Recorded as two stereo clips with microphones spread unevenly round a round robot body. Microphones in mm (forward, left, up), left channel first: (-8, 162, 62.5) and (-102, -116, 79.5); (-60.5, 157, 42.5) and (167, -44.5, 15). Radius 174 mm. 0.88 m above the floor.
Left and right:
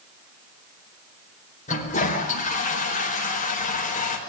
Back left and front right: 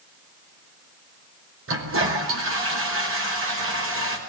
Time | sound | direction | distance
1.7 | a toilet flushing | 5° left | 5 m